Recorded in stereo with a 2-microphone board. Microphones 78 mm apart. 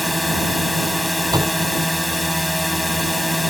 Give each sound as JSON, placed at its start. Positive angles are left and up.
{"t": 0.0, "sound": "a drone", "side_deg": 0}
{"t": 1.3, "sound": "a door slam", "side_deg": -60}